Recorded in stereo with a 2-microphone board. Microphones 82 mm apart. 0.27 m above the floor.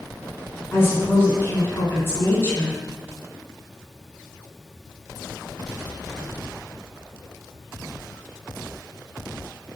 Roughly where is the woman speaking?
Left.